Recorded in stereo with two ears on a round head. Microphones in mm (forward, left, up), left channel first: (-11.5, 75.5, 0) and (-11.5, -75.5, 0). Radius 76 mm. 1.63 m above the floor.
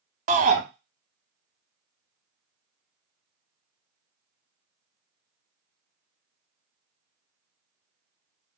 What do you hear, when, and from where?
0.3 s a shout: 45° right (ahead or behind), 0.7 m